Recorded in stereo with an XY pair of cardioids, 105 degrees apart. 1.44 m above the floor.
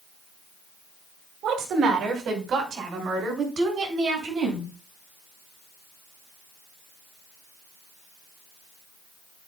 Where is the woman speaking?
65° right, 2 m; by 4.7 s 50° right, 4.5 m.